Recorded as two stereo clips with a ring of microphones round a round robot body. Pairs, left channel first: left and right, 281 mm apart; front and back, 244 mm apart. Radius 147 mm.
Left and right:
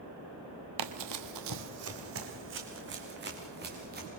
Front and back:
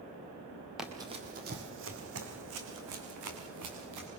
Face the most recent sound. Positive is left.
turn(degrees=-150)